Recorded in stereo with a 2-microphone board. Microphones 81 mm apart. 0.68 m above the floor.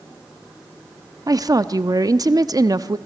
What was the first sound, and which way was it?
A woman speaking, 45° right (ahead or behind).